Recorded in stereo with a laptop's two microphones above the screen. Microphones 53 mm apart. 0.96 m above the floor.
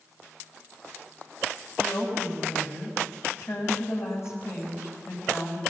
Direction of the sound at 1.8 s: 55° left (ahead or behind).